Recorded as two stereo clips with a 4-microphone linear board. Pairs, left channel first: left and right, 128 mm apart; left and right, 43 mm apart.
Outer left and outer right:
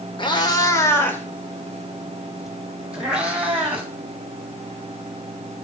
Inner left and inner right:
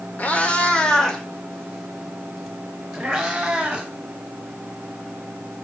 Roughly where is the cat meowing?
Left.